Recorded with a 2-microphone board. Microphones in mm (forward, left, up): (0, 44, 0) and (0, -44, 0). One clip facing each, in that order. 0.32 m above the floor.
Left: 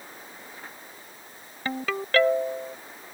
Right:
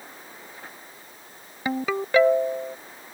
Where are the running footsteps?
I don't hear running footsteps.